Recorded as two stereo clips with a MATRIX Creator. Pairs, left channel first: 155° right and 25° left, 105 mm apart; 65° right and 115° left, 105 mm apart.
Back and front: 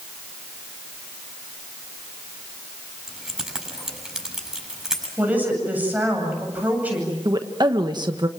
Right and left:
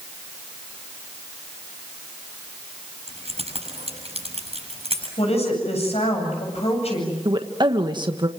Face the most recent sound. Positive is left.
turn(degrees=70)